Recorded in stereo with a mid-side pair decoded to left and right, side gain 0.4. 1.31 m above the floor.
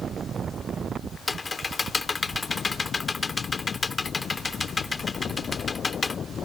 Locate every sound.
1.3 s typing on a keyboard: 35° left